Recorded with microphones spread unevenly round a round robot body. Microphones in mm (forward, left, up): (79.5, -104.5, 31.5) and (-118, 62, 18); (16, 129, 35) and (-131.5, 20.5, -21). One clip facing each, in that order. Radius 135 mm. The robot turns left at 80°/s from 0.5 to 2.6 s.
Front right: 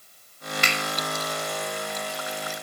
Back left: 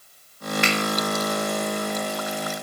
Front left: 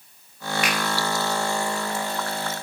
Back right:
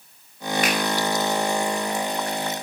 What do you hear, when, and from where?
0.6 s a finger snap: 90° right, 2.5 m; by 0.8 s 100° right, 2.5 m